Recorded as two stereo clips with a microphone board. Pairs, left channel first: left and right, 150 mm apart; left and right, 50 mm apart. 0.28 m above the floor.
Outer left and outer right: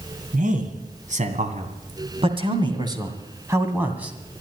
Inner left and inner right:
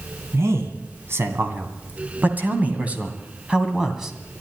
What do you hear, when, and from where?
0.3 s a man speaking: 60° right (ahead or behind), 2.5 m; by 4.1 s 5° right (ahead or behind), 2 m